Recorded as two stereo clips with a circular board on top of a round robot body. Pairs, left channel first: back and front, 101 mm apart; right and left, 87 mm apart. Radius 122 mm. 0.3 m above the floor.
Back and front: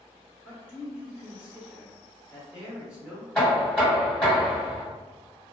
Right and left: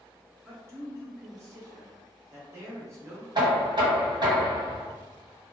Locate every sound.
0.4 s a man speaking: 70° left, 1.6 m
3.4 s knocking: 100° left, 1.9 m